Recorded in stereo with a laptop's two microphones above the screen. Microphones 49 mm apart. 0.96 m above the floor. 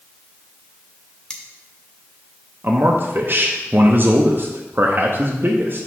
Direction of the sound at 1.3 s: 15° left (ahead or behind).